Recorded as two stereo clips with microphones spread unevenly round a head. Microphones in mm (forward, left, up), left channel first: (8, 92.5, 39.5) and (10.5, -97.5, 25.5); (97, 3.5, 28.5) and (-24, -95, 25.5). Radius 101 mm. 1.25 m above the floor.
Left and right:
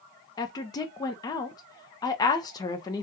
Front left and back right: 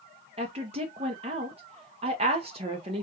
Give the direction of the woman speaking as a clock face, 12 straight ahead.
7 o'clock.